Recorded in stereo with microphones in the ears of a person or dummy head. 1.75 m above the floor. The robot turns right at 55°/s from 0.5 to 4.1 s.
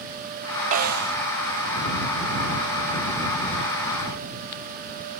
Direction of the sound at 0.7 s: 40° right (ahead or behind).